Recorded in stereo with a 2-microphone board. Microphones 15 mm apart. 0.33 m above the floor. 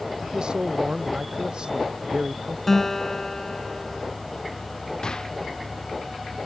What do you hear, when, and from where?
0.2 s a man speaking: 70° right (ahead or behind)
2.7 s a guitar: 20° left (ahead or behind)
5.0 s a gunshot: 55° left (ahead or behind)